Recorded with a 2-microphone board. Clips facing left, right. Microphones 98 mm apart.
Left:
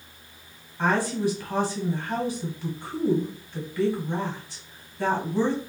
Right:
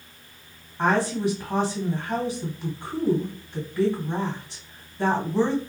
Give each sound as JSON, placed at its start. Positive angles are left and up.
{"t": 0.8, "sound": "a woman speaking", "side_deg": -15, "distance_m": 1.6}